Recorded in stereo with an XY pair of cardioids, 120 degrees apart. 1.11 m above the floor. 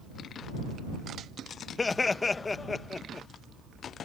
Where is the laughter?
25° left.